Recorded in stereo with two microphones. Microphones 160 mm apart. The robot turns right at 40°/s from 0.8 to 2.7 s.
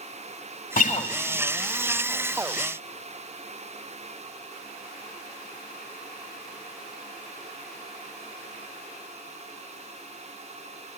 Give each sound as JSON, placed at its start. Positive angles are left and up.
{"t": 0.8, "sound": "a guitar", "side_deg": 55, "distance_m": 0.9}